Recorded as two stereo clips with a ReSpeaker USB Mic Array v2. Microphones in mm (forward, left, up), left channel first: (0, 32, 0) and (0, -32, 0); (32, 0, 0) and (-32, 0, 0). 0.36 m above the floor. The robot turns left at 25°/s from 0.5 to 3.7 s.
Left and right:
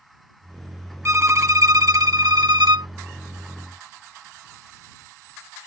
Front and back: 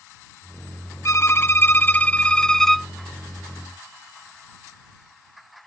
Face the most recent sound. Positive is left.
turn(degrees=-110)